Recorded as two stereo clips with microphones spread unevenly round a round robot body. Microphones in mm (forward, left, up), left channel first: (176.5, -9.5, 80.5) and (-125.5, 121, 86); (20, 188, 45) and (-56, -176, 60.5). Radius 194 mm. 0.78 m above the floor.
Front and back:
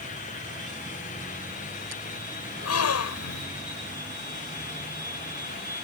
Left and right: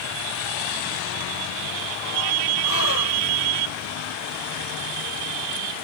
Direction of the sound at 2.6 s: 20° left.